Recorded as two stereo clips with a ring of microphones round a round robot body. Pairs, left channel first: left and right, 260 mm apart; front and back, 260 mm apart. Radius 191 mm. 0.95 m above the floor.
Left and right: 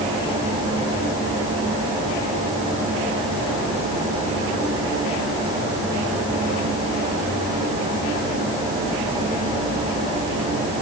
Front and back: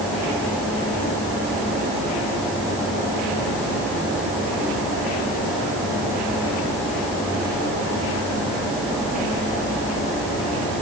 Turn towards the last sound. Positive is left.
No sound to turn to.